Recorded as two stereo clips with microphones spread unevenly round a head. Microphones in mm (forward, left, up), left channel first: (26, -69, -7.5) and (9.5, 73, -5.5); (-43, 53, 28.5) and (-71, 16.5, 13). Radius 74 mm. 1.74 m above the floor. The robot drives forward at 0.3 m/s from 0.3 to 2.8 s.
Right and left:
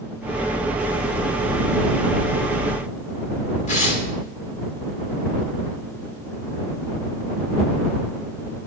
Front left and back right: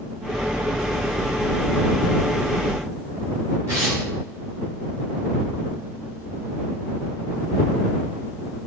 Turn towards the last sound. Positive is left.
turn(degrees=-65)